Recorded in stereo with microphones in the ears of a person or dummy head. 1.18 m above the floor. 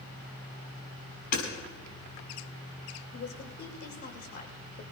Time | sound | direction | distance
1.3 | hammering | 50° left (ahead or behind) | 6.5 m
3.1 | a woman speaking | 50° left (ahead or behind) | 2 m